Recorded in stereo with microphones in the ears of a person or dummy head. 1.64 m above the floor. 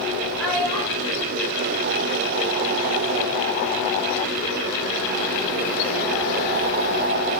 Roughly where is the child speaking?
Centre.